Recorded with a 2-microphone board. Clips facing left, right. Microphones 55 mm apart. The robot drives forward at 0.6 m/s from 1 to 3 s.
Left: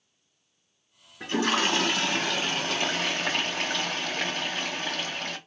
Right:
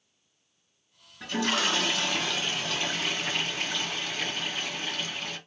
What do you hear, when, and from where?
1.2 s a toilet flushing: 35° left (ahead or behind), 2.0 m; by 5.4 s 60° left (ahead or behind), 1.3 m